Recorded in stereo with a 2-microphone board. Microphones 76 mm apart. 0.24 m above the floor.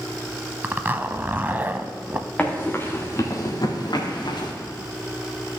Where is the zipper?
25° right (ahead or behind), 0.5 m.